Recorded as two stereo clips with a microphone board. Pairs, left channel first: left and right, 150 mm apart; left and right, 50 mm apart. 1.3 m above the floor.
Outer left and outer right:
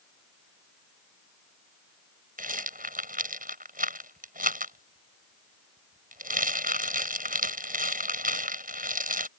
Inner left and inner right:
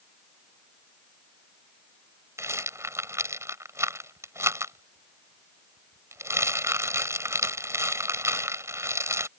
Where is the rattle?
70° right (ahead or behind).